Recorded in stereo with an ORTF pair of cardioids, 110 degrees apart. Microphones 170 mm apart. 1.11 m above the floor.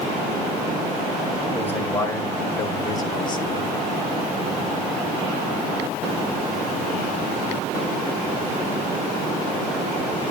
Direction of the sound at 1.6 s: 10° left.